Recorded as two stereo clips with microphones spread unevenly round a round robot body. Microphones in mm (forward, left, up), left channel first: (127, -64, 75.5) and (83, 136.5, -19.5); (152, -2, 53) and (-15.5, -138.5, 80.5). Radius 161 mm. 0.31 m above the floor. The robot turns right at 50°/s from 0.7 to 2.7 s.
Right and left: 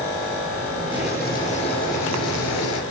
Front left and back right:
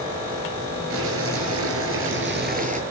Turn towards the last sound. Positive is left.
turn(degrees=-90)